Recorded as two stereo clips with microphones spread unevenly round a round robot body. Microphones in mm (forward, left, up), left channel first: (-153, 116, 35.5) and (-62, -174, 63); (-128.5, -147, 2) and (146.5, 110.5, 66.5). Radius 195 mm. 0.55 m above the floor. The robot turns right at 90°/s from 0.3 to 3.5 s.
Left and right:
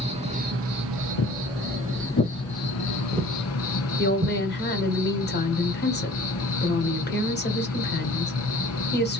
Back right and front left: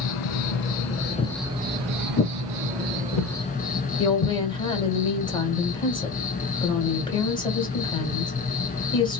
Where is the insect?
140° right, 0.8 m; by 9.2 s 150° left, 0.8 m.